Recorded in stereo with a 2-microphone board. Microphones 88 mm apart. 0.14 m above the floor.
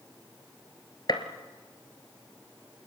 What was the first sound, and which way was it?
A gunshot, 55° left (ahead or behind).